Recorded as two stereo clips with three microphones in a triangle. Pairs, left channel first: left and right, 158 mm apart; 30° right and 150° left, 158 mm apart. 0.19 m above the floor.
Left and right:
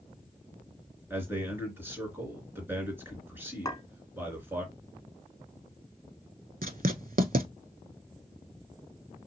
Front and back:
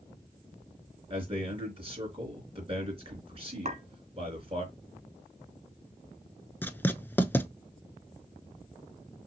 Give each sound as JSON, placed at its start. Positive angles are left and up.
{"t": 1.1, "sound": "a man speaking", "azimuth_deg": -165, "distance_m": 3.0}
{"t": 3.6, "sound": "a clink", "azimuth_deg": 150, "distance_m": 1.1}
{"t": 6.6, "sound": "writing", "azimuth_deg": -105, "distance_m": 0.5}